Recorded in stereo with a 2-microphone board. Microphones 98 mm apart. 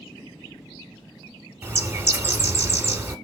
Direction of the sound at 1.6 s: 30° right (ahead or behind).